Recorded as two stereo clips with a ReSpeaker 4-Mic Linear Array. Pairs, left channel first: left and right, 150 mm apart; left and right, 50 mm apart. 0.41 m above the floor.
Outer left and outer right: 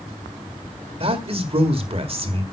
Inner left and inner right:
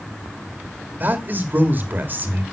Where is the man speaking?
40° right (ahead or behind), 1.7 m.